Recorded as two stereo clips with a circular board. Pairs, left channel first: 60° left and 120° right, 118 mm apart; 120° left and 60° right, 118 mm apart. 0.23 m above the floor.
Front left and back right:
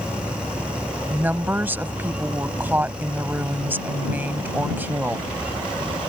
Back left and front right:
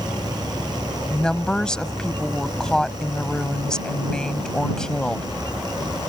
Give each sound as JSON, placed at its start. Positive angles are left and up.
{"t": 1.1, "sound": "a woman speaking", "azimuth_deg": -165}